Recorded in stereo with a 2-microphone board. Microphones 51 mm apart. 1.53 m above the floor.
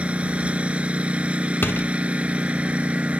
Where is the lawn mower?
25° right (ahead or behind).